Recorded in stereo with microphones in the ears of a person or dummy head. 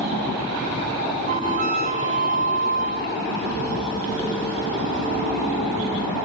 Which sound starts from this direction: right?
A flute, at 1.3 s.